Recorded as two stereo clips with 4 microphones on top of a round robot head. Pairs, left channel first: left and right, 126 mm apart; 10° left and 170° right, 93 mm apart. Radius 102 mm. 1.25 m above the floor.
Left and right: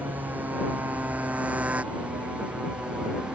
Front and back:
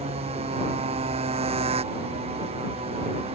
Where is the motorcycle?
170° right; by 3.3 s 175° right.